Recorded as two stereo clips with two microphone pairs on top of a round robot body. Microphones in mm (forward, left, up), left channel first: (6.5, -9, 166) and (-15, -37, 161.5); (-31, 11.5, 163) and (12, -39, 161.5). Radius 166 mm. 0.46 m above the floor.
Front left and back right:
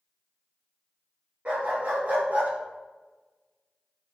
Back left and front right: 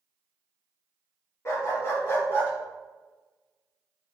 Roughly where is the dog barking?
Behind.